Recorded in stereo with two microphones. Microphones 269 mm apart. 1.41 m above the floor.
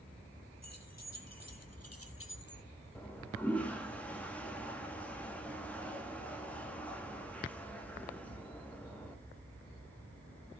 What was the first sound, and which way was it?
Keys jangling, 75° left (ahead or behind).